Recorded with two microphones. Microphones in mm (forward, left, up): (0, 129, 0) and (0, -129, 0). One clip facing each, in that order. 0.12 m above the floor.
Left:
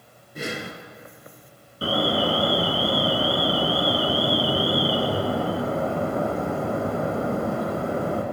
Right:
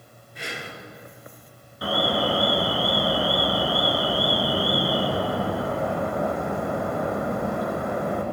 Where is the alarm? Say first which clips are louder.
Left 2 dB; 30° left (ahead or behind), 1.3 m.